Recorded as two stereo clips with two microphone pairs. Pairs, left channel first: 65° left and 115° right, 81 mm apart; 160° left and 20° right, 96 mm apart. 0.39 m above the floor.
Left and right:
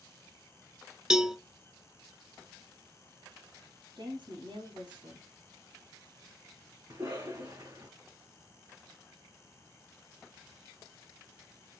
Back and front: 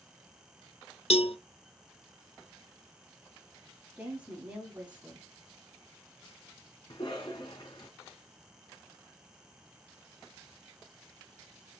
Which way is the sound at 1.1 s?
165° left.